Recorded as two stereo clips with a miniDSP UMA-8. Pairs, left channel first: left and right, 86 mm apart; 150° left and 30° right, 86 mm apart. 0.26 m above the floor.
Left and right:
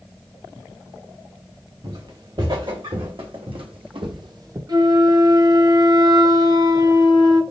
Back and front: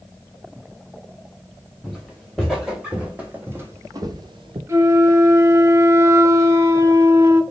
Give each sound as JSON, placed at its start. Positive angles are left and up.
{"t": 1.8, "sound": "footsteps", "azimuth_deg": -120, "distance_m": 1.9}
{"t": 4.7, "sound": "a flute", "azimuth_deg": -75, "distance_m": 0.7}